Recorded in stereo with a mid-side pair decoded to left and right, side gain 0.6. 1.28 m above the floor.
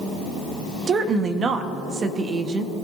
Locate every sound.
0.9 s a woman speaking: 40° right, 1.4 m